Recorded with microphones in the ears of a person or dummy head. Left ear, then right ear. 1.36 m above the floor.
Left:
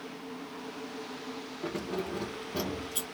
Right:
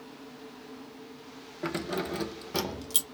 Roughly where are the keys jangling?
Right.